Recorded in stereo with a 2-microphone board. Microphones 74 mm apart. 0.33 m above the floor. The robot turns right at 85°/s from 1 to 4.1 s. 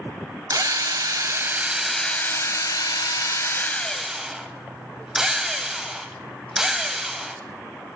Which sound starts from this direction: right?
A drill, at 0.5 s.